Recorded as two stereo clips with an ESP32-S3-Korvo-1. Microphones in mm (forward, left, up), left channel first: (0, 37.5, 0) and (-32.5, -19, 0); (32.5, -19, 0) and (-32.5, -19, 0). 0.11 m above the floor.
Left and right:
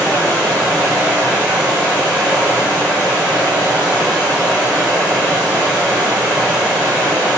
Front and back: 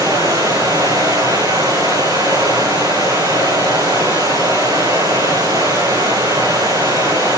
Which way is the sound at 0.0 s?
175° left.